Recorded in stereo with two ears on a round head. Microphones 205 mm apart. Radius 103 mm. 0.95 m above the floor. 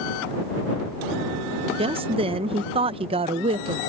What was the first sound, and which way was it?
A woman speaking, 25° right (ahead or behind).